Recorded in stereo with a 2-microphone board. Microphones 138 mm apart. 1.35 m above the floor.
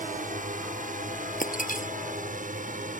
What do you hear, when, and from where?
0.0 s a drone: 70° right (ahead or behind)
1.4 s breaking glass: 80° left